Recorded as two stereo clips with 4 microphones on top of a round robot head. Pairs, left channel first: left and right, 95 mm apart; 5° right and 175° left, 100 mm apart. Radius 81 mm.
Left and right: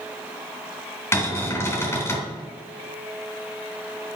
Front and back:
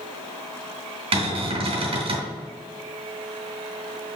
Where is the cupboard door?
150° left, 2.5 m.